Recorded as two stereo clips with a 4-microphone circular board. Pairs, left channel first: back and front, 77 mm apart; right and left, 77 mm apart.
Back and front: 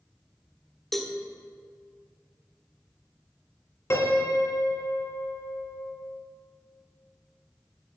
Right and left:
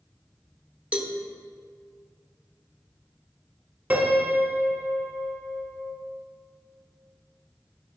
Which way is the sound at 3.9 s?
155° left.